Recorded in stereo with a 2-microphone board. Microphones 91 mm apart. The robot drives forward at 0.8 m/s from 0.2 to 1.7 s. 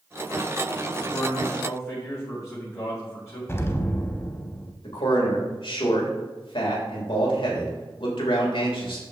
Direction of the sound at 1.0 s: 35° left (ahead or behind).